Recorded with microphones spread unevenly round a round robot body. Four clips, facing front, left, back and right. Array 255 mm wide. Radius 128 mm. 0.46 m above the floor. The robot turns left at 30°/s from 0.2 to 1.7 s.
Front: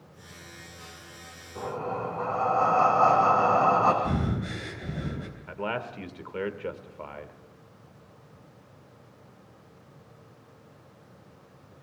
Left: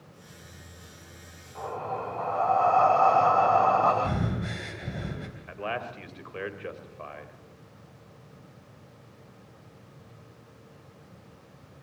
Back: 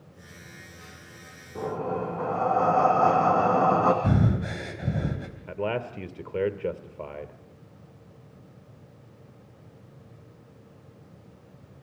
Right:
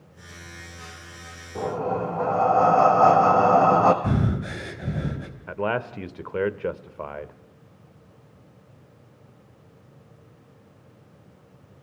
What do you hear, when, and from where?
1.6 s breathing: 115° right, 4 m; by 3.9 s 120° right, 4 m
4.0 s breathing: 155° right, 3.5 m
5.5 s a man speaking: 130° right, 1.4 m